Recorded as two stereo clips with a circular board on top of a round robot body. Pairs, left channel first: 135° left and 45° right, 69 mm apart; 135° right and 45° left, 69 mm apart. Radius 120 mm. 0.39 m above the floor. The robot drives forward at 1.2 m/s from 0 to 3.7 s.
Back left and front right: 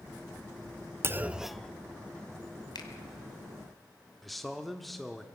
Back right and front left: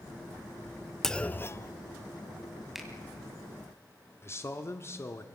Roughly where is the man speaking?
Behind right.